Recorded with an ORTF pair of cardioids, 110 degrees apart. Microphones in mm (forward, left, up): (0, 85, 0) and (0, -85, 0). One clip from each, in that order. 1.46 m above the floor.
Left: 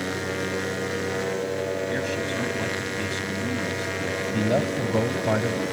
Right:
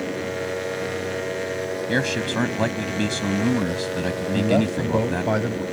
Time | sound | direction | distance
1.9 | a man speaking | 55° right | ?
4.3 | a man speaking | 10° right | ?